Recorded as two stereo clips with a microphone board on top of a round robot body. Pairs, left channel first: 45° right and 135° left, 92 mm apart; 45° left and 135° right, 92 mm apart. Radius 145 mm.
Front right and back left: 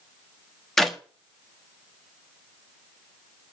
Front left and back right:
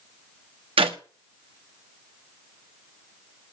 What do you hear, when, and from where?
0.8 s a clap: 135° right, 1.5 m